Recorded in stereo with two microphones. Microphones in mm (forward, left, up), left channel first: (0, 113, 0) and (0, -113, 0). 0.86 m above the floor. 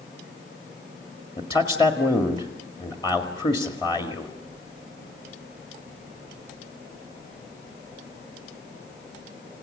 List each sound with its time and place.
1.4 s a man speaking: 20° left (ahead or behind), 1.9 m